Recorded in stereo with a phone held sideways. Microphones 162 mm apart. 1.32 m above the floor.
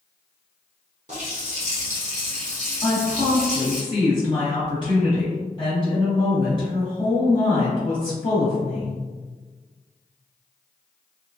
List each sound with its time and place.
1.1 s a running tap: 45° right (ahead or behind), 1.0 m
2.8 s a woman speaking: 30° left (ahead or behind), 1.2 m